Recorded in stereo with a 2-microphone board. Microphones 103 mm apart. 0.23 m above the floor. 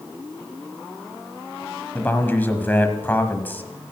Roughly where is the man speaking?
Centre.